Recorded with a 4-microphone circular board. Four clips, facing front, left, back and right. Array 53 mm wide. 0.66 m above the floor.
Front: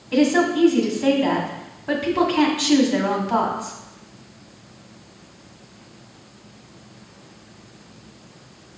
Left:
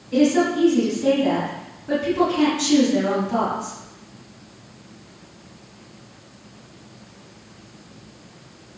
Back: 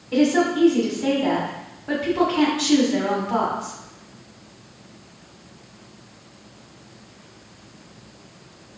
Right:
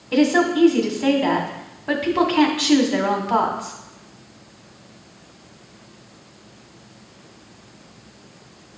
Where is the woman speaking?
80° right, 2 m.